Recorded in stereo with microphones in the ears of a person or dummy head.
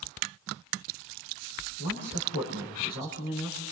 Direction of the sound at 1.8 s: 85° left.